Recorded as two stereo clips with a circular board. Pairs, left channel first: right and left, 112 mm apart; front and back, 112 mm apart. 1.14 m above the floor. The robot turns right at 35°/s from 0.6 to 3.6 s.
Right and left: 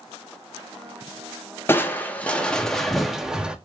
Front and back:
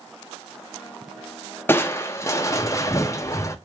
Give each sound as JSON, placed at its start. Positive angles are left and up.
{"t": 1.7, "sound": "crushing", "azimuth_deg": -45, "distance_m": 0.6}